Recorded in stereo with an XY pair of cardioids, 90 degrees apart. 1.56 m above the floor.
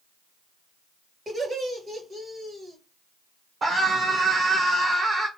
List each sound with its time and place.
1.3 s laughter: 40° right, 2.5 m
3.6 s a scream: 35° right, 1.1 m